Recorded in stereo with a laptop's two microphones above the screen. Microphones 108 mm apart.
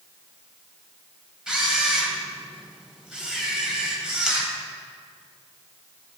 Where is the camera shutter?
5° right (ahead or behind), 3.5 m.